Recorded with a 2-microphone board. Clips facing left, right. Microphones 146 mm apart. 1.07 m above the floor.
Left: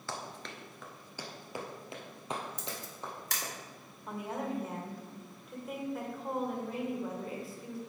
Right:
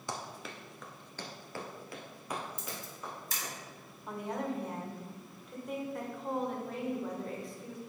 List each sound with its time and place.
0.1 s running footsteps: 15° right (ahead or behind), 1.0 m; by 3.5 s 30° left (ahead or behind), 2.5 m
2.6 s a camera shutter: 75° left (ahead or behind), 1.4 m
4.1 s a woman speaking: 5° left (ahead or behind), 1.5 m